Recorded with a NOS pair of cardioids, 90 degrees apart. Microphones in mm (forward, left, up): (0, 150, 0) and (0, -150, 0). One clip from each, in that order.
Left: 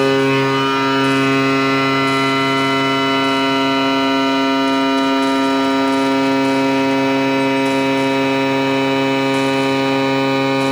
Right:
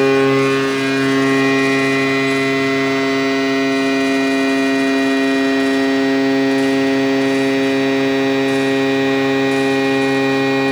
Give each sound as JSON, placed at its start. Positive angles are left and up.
{"t": 0.0, "sound": "a machine running", "azimuth_deg": -5, "distance_m": 2.0}